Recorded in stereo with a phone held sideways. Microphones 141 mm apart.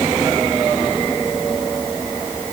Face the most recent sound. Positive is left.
No sound to turn to.